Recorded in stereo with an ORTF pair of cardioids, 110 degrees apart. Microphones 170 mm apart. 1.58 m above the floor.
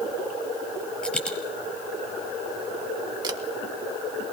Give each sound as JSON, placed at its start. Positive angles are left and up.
{"t": 1.0, "sound": "a dropped coin", "azimuth_deg": 5, "distance_m": 5.5}
{"t": 3.2, "sound": "a camera shutter", "azimuth_deg": -25, "distance_m": 2.5}